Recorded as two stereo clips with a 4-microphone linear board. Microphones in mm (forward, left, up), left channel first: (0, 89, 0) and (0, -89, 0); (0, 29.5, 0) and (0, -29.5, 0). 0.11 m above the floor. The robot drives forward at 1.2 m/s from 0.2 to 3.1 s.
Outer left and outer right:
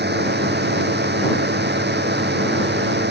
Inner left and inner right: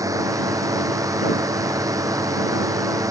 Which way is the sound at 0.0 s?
70° right (ahead or behind).